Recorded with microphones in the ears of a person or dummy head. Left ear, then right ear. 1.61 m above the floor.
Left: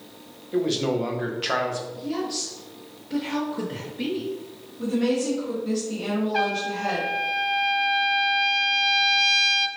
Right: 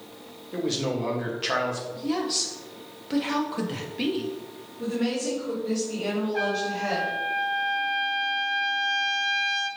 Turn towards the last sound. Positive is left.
turn(degrees=70)  # may be behind; listen again after turning